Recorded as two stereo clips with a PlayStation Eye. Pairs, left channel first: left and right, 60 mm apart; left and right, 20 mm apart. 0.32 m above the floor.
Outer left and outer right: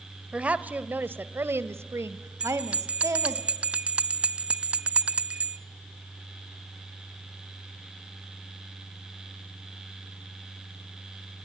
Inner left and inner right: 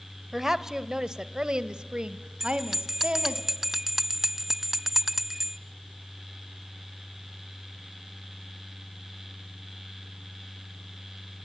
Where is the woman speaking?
20° right (ahead or behind), 1.1 m; by 3.4 s 60° right (ahead or behind), 1.9 m.